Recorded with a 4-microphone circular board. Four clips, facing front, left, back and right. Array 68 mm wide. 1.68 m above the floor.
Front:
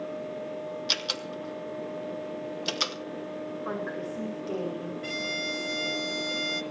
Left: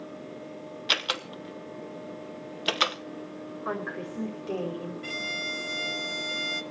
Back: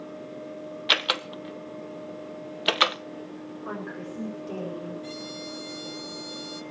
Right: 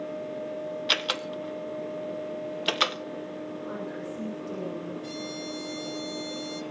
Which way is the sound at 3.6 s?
80° left.